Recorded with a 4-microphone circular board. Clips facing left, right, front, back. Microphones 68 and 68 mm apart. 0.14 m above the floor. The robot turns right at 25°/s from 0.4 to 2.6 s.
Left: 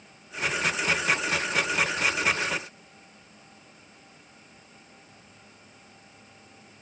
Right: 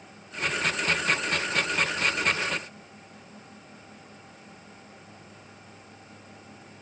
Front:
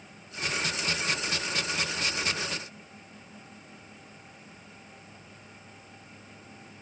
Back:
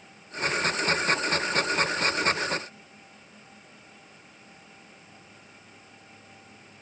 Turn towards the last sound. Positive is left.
No sound to turn to.